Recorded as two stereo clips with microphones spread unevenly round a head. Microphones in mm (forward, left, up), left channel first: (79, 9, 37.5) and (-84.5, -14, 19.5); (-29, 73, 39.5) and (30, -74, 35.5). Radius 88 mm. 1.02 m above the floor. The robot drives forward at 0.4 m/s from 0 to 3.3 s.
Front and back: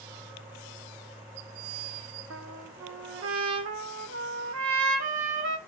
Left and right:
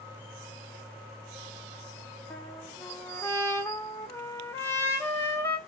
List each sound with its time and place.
2.3 s a trumpet: 170° right, 0.9 m; by 5.6 s 175° right, 1.2 m